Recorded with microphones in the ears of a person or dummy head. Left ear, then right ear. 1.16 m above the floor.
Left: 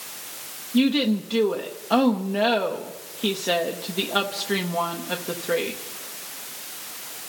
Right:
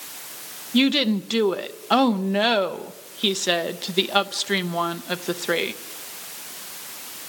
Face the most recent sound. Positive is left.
turn(degrees=-60)  # may be behind; listen again after turning